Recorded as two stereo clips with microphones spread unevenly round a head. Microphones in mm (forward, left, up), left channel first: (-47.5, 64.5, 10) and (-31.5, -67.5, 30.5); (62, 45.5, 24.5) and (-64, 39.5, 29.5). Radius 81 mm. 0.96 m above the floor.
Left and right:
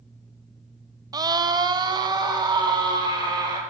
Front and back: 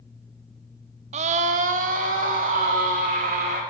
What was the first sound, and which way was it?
A scream, 150° right.